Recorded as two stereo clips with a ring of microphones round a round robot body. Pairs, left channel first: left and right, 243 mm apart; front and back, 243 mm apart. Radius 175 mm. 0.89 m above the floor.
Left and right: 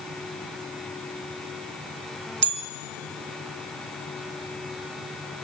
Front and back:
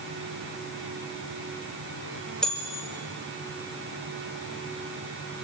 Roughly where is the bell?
Right.